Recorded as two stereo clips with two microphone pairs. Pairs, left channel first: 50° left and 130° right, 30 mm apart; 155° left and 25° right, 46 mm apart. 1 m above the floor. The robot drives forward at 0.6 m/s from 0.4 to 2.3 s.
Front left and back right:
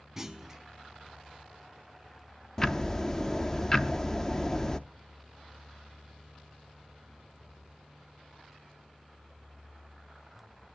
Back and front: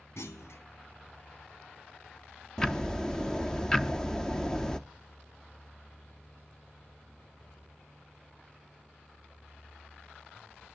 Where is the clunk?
155° left, 0.9 m.